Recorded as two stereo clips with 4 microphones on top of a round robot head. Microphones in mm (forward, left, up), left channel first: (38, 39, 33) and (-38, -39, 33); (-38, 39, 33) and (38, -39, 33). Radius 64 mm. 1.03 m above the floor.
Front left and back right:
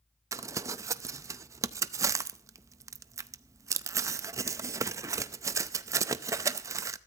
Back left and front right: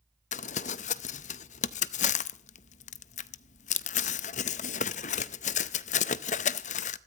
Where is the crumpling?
160° left, 0.6 m.